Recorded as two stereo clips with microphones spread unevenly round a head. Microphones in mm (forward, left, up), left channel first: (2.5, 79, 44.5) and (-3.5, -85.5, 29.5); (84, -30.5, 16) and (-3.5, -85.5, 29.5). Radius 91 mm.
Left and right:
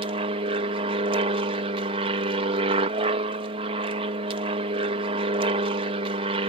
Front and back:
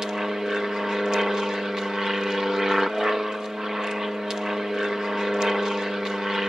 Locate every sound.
0.0 s an aircraft: 60° right